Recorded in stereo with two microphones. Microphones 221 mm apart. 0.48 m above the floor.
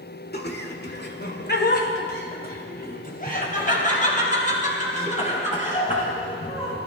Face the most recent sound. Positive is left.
turn(degrees=30)  # may be behind; listen again after turning